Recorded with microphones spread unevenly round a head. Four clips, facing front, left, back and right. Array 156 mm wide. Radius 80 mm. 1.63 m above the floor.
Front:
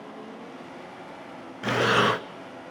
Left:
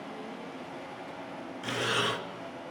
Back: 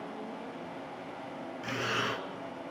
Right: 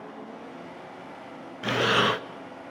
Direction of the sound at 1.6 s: 35° right.